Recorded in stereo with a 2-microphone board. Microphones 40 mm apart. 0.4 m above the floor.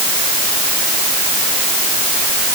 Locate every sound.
Only background noise.